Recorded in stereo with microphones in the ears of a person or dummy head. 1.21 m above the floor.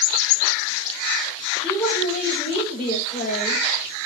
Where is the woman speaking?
Centre (ahead or behind), 5.5 m.